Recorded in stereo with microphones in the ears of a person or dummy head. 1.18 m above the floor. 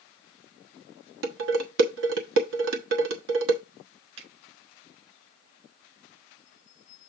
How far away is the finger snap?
About 5.5 m.